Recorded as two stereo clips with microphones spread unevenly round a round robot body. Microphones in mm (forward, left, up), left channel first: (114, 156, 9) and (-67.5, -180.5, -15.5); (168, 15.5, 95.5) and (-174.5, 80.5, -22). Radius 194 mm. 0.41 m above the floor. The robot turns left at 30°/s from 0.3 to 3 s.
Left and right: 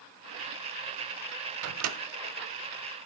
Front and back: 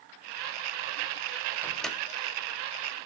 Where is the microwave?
115° right, 0.8 m; by 2.0 s 125° right, 0.8 m.